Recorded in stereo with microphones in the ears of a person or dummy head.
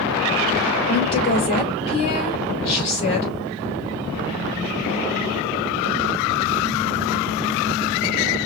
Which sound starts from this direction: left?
A woman speaking, at 0.9 s.